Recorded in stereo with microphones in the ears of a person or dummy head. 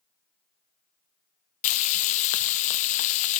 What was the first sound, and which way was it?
Frying, 40° left (ahead or behind).